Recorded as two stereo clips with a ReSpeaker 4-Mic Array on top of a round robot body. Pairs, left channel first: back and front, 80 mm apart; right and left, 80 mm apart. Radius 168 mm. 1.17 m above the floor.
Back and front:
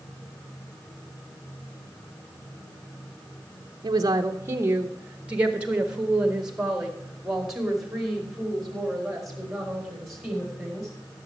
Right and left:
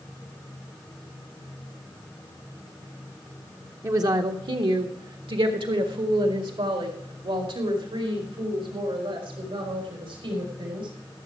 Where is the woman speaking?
40° left, 0.6 m; by 10.9 s 90° left, 4.5 m.